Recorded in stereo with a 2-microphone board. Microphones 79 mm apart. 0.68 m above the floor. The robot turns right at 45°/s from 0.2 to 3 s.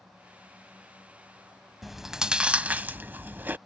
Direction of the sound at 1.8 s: Centre (ahead or behind).